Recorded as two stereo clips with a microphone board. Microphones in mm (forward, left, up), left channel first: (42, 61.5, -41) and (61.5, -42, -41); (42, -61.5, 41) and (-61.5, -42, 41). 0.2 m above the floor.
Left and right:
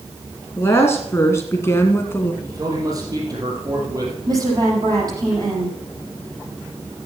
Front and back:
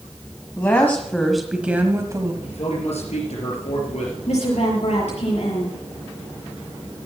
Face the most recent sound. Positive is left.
turn(degrees=-25)